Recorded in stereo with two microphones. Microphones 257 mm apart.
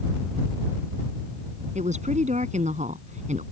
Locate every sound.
1.8 s a woman speaking: 30° right (ahead or behind)